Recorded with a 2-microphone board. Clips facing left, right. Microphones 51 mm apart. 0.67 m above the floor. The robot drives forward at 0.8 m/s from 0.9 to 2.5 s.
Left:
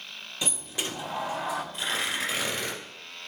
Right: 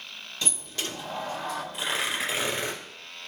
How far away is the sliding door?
About 0.6 m.